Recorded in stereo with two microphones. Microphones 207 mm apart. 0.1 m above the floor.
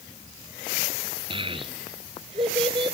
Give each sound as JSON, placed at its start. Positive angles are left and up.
{"t": 1.3, "sound": "a child speaking", "side_deg": -25, "distance_m": 0.9}